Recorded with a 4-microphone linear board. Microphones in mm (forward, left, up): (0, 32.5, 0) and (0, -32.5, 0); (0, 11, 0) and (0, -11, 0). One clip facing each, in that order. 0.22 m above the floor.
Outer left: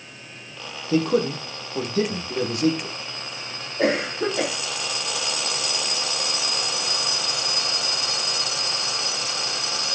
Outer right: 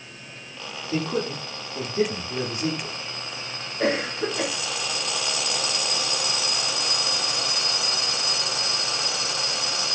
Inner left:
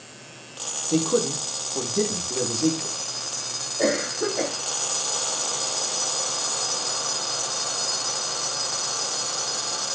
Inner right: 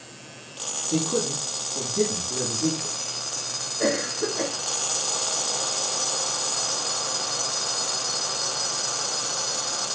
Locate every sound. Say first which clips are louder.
0.9 s a man speaking: outer left 6 dB, inner left 3 dB; 75° left (ahead or behind), 7 m
3.8 s a cough: outer left 2 dB, inner left 2 dB; 60° left (ahead or behind), 7.5 m